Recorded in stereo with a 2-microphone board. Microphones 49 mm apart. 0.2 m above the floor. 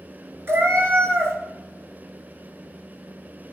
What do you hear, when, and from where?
0.5 s a cat meowing: 50° right (ahead or behind), 0.7 m